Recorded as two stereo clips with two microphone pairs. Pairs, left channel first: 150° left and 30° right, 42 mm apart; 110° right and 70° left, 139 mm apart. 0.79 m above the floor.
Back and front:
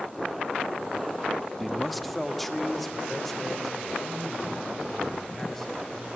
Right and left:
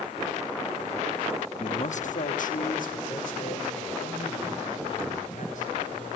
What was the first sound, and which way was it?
A man speaking, 115° right.